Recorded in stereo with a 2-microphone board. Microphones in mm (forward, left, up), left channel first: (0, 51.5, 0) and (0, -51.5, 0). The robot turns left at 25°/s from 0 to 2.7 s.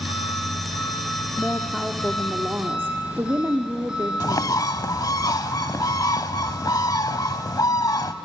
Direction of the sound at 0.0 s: 60° left.